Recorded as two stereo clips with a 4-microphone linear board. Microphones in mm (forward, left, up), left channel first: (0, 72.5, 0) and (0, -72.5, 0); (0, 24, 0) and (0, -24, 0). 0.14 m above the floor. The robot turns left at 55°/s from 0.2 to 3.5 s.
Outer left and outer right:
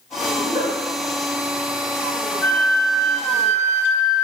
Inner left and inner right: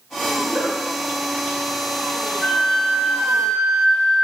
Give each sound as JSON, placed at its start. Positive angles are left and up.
{"t": 0.4, "sound": "a giggle", "side_deg": -20, "distance_m": 1.9}
{"t": 2.4, "sound": "a flute", "side_deg": 20, "distance_m": 0.7}